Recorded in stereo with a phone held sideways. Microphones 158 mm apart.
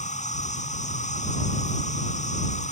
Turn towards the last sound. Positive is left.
turn(degrees=45)  # may be behind; listen again after turning